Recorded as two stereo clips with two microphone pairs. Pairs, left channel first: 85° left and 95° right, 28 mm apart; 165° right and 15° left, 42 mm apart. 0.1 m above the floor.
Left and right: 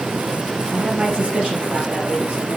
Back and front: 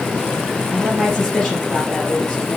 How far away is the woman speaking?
About 2.5 m.